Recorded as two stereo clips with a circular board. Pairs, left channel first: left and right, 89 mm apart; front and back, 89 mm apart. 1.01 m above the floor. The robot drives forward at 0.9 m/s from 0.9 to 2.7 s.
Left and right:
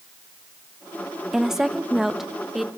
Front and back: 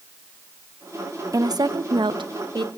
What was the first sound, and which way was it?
A woman speaking, 170° right.